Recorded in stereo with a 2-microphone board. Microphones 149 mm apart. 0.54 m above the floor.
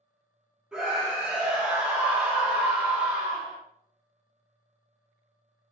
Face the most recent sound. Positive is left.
turn(degrees=-10)  # may be behind; listen again after turning